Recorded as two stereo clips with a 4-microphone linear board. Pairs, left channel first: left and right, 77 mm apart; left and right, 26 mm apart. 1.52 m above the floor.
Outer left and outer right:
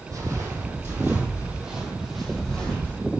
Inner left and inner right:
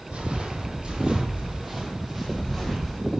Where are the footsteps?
45° right (ahead or behind), 2.5 m; by 3.0 s 15° left (ahead or behind), 2.5 m.